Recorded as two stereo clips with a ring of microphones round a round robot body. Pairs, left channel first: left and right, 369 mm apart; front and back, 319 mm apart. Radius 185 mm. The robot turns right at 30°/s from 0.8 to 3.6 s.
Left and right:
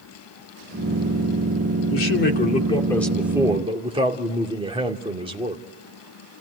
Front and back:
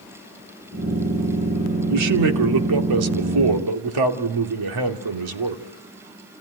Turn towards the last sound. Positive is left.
turn(degrees=-165)